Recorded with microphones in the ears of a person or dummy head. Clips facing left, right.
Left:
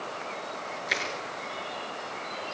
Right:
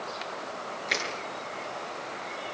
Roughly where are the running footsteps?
I don't hear running footsteps.